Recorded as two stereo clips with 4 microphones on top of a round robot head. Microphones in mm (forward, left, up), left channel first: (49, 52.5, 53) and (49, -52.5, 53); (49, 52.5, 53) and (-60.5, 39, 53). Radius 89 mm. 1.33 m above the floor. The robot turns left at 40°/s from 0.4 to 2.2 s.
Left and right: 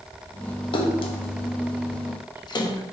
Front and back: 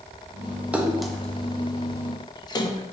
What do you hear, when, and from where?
0.7 s a splash: 110° left, 0.5 m; by 2.8 s 50° left, 0.5 m